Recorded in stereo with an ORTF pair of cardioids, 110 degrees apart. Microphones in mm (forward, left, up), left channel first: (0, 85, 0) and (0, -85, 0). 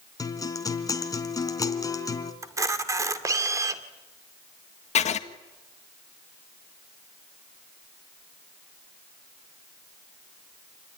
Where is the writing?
40° left, 1.8 m.